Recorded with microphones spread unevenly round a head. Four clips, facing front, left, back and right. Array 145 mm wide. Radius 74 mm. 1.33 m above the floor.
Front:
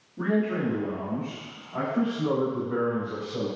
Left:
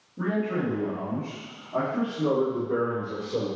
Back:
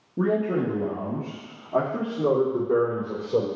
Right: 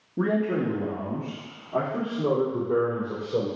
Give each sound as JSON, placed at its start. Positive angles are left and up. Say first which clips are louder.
{"t": 0.2, "sound": "a man speaking", "louder": "right 3 dB, back 2 dB", "azimuth_deg": -140, "distance_m": 1.3}